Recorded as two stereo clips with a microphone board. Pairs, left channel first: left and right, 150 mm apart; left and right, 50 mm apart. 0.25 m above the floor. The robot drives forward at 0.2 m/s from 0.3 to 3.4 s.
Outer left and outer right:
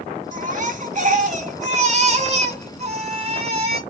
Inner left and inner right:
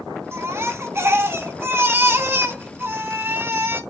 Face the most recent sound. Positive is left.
turn(degrees=-45)  # may be behind; listen again after turning